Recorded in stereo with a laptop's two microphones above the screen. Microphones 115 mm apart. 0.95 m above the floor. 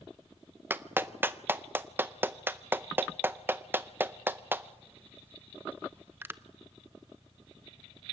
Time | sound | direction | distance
0.7 | a clap | 20° right (ahead or behind) | 0.5 m